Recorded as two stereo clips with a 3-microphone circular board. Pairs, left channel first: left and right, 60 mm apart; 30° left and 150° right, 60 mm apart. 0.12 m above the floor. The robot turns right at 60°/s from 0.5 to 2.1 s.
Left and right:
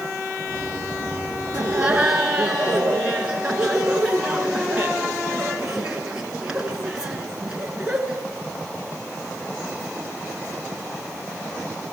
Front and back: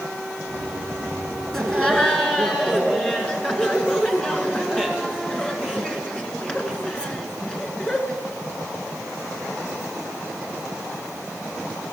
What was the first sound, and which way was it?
Laughter, 55° right.